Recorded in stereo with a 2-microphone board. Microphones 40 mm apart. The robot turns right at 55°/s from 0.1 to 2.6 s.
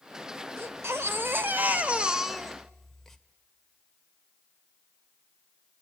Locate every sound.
0.6 s a baby crying: 105° right, 1.1 m; by 3.2 s 10° left, 1.1 m